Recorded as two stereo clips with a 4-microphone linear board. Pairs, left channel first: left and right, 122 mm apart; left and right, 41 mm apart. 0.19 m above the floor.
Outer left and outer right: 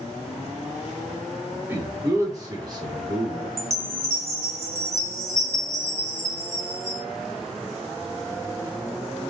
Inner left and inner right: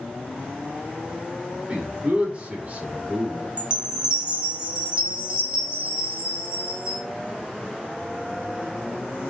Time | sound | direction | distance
1.6 | a man speaking | 20° right (ahead or behind) | 2.5 m
3.6 | a chime | 20° right (ahead or behind) | 1.5 m